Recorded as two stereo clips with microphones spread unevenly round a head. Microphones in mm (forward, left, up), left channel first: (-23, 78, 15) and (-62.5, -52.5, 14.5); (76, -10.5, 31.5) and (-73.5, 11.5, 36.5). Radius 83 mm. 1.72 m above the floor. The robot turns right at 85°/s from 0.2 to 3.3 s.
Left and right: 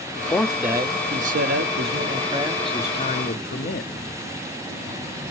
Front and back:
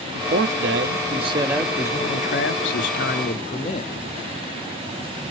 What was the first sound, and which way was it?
A man speaking, 140° left.